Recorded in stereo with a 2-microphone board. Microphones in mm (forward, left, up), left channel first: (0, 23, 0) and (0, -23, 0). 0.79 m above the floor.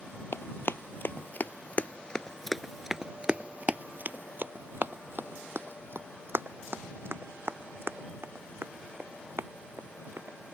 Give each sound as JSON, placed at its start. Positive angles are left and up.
{"t": 0.3, "sound": "running footsteps", "side_deg": 55}